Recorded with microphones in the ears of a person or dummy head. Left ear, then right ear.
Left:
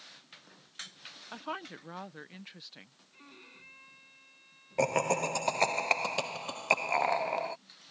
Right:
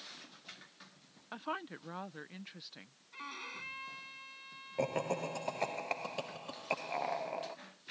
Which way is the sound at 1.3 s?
5° left (ahead or behind).